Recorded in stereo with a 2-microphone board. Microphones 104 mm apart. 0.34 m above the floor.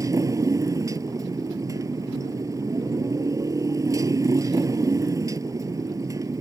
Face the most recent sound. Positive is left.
turn(degrees=-30)  # may be behind; listen again after turning